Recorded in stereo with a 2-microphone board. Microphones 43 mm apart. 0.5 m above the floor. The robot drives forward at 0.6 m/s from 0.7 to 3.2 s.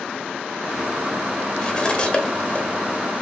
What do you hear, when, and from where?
1.6 s cutlery clinking: 15° left (ahead or behind), 1.0 m; by 2.6 s 30° left (ahead or behind), 0.6 m